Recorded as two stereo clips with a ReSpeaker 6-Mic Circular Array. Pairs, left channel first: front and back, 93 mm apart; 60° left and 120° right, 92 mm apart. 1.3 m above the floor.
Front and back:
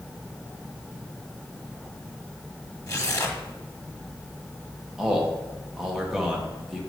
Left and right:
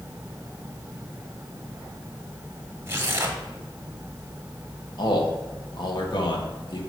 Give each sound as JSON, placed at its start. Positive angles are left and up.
{"t": 2.9, "sound": "tearing paper", "azimuth_deg": -60, "distance_m": 1.0}
{"t": 5.0, "sound": "a man speaking", "azimuth_deg": 95, "distance_m": 1.2}